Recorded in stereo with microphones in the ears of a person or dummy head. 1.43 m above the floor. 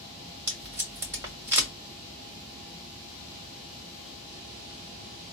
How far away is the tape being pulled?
About 1.9 m.